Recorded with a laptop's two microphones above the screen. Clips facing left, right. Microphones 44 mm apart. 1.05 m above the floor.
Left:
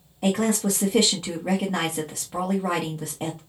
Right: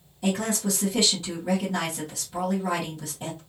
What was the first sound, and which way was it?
A woman speaking, 50° left (ahead or behind).